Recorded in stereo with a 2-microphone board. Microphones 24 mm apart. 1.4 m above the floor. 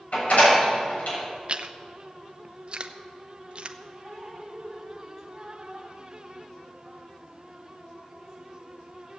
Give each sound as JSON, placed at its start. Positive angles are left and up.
{"t": 0.1, "sound": "a door slam", "side_deg": 75, "distance_m": 7.0}
{"t": 1.5, "sound": "chewing", "side_deg": -45, "distance_m": 0.7}
{"t": 4.0, "sound": "dripping", "side_deg": -20, "distance_m": 3.5}